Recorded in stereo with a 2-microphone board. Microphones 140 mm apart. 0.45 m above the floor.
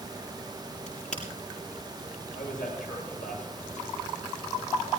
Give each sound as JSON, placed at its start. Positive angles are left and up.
{"t": 0.9, "sound": "a crack", "side_deg": 60, "distance_m": 6.5}
{"t": 2.3, "sound": "a man speaking", "side_deg": 70, "distance_m": 9.5}